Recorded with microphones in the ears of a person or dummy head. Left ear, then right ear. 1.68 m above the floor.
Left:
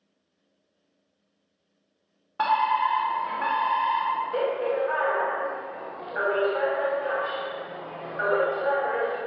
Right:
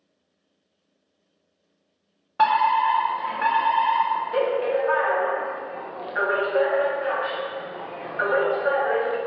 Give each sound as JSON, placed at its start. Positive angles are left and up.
{"t": 2.4, "sound": "a fire alarm", "side_deg": -15, "distance_m": 1.2}